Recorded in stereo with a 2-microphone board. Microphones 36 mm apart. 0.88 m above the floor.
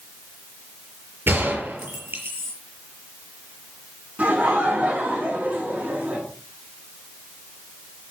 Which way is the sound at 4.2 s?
50° right (ahead or behind).